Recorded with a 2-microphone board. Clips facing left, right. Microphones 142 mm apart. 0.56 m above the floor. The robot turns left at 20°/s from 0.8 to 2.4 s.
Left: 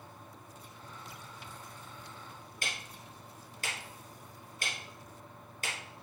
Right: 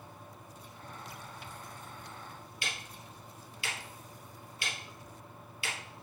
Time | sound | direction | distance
2.6 | ticking | 45° left (ahead or behind) | 2.5 m